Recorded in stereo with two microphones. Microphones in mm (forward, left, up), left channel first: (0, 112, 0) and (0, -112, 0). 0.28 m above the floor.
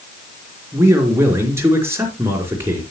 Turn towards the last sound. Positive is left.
turn(degrees=-10)  # may be behind; listen again after turning